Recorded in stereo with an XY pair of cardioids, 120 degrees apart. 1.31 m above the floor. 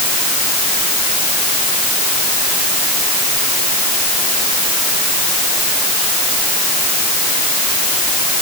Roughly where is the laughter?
I don't hear laughter.